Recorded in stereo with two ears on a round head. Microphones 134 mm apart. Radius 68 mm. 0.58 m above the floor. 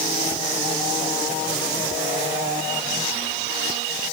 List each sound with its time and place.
Only background noise.